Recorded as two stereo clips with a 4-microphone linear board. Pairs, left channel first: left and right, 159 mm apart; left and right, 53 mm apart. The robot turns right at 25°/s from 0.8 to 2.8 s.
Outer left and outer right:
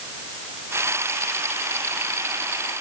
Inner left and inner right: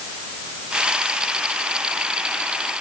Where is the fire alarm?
No fire alarm in this recording.